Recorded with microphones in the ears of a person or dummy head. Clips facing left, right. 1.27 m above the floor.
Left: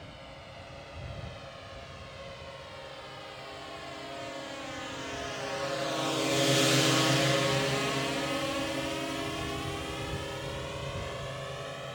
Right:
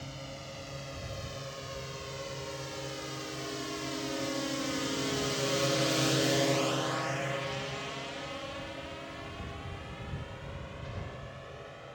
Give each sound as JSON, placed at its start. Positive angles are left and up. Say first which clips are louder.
{"t": 0.0, "sound": "a drone", "louder": "right 3 dB", "side_deg": -70}